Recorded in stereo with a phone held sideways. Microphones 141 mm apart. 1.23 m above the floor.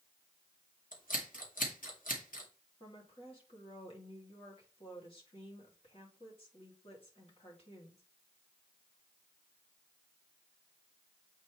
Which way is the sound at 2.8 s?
45° left (ahead or behind).